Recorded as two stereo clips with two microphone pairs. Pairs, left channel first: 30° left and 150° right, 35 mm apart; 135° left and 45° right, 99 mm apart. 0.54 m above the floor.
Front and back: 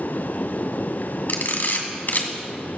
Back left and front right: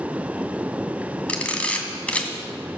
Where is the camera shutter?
55° left, 2.5 m.